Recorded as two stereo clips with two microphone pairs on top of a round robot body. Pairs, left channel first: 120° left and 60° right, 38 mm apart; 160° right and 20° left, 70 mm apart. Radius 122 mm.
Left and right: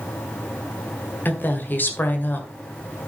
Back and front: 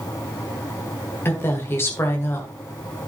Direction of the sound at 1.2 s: 145° left.